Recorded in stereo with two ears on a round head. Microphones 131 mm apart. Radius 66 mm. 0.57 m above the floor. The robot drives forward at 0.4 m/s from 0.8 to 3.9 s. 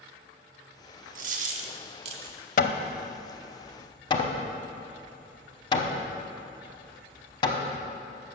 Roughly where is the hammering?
Left.